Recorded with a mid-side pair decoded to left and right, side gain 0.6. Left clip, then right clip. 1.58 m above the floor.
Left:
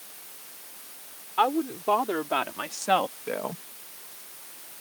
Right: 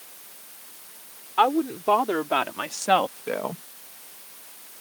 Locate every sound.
1.4 s a woman speaking: 20° right; by 3.6 s 15° right